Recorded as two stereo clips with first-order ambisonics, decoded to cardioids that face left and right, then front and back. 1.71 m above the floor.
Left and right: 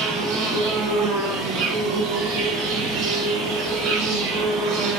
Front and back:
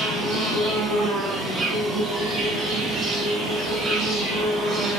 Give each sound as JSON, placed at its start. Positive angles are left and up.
{"t": 0.0, "sound": "an insect", "azimuth_deg": -120, "distance_m": 5.0}